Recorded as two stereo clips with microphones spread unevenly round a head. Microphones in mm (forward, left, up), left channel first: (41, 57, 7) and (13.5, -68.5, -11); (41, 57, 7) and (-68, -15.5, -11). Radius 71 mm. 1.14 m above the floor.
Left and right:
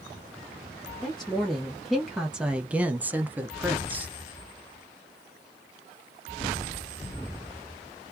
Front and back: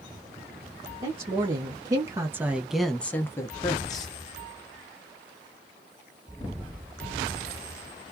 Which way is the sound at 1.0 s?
165° left.